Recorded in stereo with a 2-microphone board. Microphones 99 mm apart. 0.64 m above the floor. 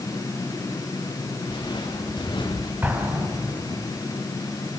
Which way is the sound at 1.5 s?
50° left (ahead or behind).